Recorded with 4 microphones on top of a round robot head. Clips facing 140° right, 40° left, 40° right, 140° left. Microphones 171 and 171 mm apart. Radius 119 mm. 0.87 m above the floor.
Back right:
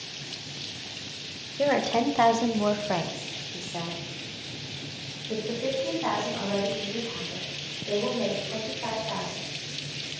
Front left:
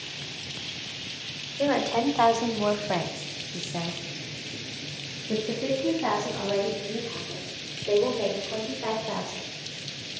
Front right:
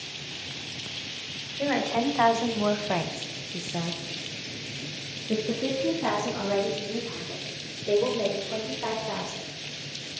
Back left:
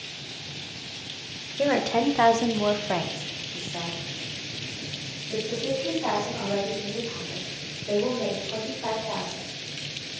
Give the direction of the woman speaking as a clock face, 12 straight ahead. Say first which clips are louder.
Even, back left 3 dB; 7 o'clock.